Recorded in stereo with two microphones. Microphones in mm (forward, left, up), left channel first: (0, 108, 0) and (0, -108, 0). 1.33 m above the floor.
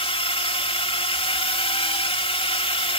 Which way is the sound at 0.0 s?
25° left (ahead or behind).